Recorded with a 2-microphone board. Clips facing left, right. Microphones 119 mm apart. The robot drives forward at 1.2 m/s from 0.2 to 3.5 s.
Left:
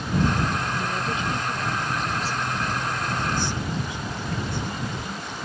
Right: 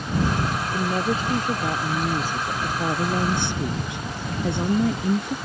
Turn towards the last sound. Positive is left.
turn(degrees=-65)  # may be behind; listen again after turning